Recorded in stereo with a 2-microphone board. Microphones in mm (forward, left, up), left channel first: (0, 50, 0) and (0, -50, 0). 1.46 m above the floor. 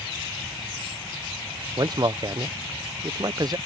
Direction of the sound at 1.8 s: 40° right (ahead or behind).